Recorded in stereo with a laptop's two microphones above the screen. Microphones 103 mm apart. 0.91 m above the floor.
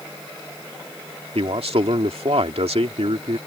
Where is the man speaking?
70° right (ahead or behind).